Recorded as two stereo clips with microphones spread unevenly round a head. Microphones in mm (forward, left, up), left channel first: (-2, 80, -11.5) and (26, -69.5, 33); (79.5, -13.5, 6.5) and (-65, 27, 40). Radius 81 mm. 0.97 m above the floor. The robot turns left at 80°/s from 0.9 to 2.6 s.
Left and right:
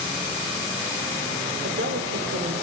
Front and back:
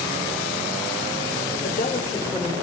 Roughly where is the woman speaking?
Ahead right.